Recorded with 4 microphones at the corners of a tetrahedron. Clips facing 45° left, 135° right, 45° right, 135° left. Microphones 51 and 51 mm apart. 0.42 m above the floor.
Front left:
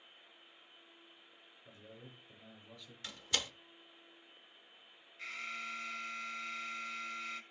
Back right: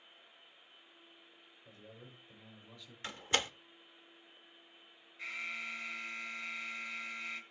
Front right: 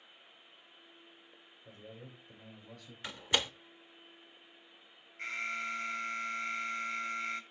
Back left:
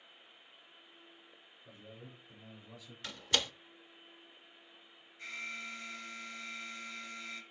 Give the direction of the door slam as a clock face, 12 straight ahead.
3 o'clock.